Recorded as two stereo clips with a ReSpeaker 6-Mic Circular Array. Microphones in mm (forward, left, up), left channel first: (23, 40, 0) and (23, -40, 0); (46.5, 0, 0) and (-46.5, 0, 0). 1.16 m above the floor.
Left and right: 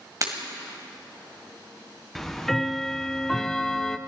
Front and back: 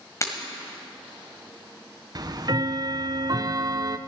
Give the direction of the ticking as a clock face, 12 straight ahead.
6 o'clock.